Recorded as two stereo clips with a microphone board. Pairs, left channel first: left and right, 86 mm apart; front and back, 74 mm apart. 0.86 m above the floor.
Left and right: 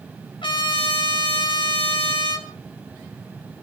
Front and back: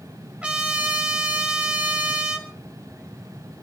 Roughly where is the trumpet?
Left.